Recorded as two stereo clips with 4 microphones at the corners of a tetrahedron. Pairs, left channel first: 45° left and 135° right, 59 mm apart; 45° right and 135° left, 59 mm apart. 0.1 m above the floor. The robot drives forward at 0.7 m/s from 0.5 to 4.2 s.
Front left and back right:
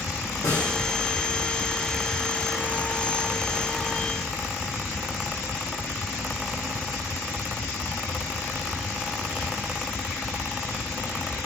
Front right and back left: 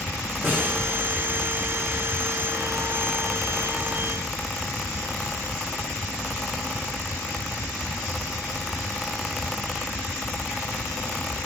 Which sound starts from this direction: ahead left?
A snare drum, at 0.4 s.